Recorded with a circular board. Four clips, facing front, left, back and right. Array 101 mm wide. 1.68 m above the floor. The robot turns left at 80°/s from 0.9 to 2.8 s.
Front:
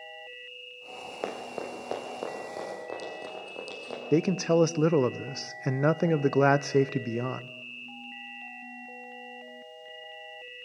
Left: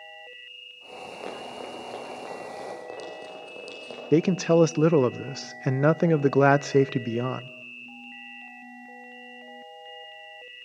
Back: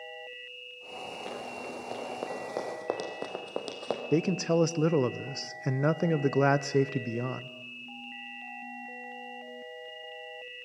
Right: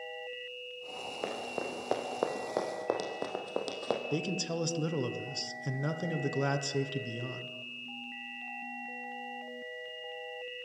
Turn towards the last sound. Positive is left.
turn(degrees=75)